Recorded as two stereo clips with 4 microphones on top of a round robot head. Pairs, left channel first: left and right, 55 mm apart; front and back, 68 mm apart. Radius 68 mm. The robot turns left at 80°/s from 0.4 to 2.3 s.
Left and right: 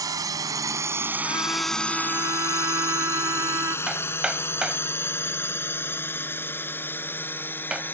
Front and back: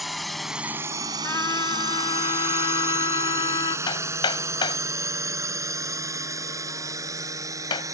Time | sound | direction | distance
0.0 | a drone | 90° right | ?
1.2 | a trumpet | 55° left | ?
3.9 | hammering | 10° right | ?